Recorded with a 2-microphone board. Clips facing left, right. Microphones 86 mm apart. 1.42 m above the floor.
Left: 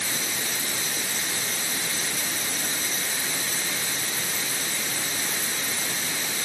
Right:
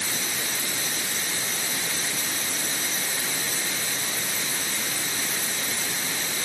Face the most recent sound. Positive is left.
No sound to turn to.